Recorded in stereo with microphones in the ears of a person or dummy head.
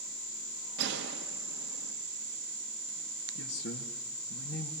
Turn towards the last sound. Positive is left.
turn(degrees=70)  # may be behind; listen again after turning